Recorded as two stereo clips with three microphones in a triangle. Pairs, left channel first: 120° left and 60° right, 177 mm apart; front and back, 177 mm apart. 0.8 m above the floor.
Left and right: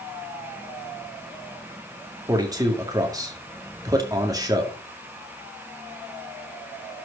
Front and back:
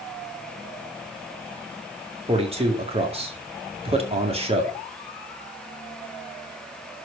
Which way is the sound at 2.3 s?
130° right.